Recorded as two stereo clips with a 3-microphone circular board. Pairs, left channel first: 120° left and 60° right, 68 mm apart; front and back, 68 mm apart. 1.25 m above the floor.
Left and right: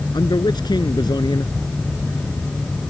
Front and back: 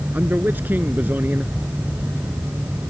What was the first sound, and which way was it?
A man speaking, 115° left.